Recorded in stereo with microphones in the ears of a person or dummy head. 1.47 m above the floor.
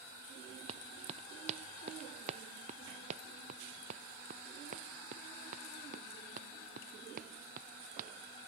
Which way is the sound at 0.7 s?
35° right (ahead or behind).